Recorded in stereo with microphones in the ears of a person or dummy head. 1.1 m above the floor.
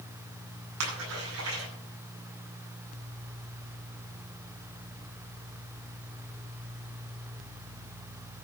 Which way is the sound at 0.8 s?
80° right.